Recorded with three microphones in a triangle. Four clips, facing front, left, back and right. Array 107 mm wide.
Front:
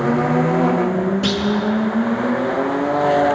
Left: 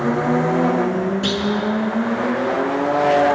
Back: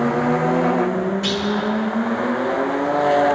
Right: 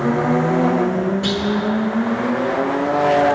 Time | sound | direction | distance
1.2 | a clunk | 30° left | 1.6 m